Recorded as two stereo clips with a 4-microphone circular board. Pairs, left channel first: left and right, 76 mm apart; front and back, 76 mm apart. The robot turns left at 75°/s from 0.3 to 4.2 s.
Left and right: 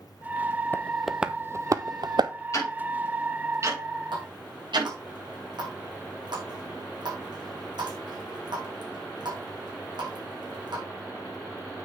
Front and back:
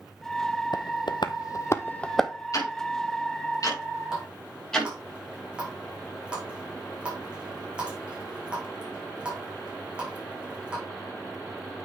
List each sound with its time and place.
0.7 s tapping: 25° left, 0.7 m; by 2.3 s 95° right, 0.7 m
2.5 s ticking: 45° left, 6 m; by 4.9 s 80° right, 6 m
4.1 s a running tap: 100° right, 5 m; by 10.8 s 105° right, 5 m